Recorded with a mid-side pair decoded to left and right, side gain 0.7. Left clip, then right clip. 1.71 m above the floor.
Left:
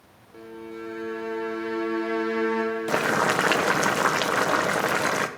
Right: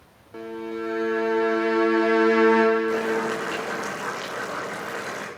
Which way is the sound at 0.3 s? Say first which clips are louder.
Right 7 dB; 35° right.